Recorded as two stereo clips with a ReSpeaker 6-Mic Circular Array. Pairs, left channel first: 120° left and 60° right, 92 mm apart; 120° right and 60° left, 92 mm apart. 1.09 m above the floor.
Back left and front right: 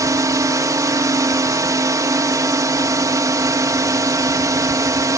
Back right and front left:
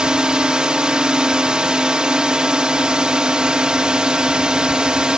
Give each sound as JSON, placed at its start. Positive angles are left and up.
{"t": 0.0, "sound": "a drone", "azimuth_deg": -20}